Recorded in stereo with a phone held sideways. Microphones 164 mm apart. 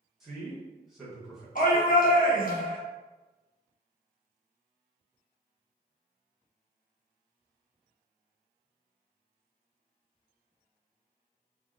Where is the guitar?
No guitar in this recording.